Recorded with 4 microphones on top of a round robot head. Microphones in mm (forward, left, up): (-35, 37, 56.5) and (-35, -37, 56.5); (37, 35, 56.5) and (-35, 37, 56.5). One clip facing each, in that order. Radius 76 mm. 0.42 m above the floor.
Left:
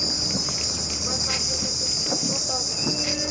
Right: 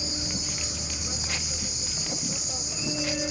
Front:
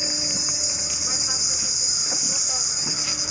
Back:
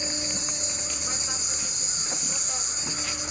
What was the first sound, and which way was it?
An insect, 80° left.